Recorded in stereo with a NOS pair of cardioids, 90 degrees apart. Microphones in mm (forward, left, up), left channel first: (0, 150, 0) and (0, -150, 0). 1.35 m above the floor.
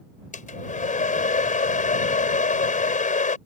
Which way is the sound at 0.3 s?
25° left.